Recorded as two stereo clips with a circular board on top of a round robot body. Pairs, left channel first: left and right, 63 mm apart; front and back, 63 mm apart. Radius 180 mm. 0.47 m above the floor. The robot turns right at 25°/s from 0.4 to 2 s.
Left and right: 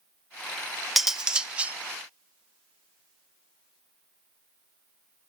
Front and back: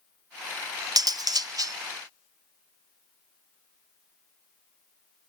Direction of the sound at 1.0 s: 175° right.